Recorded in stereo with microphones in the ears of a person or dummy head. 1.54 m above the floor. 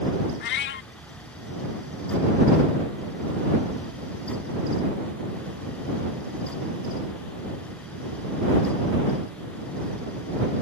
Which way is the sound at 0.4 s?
60° left (ahead or behind).